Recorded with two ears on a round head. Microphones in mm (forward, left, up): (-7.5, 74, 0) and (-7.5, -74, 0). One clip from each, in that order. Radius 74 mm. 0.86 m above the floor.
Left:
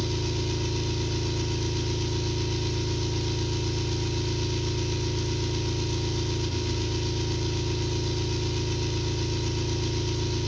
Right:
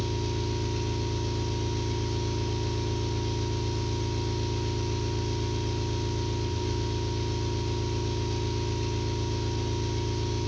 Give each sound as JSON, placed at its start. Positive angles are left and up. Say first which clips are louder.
{"t": 0.0, "sound": "an engine running", "louder": "left 2 dB", "side_deg": 40, "distance_m": 2.0}